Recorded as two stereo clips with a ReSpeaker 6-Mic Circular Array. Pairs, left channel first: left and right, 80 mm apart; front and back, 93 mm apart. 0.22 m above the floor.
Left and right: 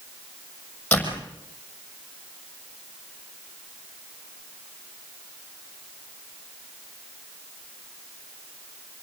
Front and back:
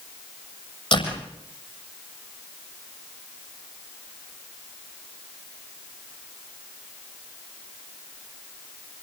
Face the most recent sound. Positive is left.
turn(degrees=20)